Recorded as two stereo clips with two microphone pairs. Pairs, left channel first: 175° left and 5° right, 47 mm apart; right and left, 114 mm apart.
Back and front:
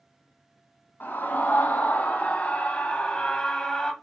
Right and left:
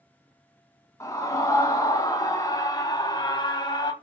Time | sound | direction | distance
1.0 | a scream | 150° right | 3 m